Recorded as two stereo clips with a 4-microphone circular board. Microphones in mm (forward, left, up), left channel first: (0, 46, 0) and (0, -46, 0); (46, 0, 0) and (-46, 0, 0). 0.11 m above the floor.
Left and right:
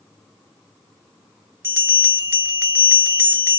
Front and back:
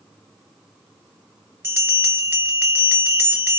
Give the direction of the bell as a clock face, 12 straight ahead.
4 o'clock.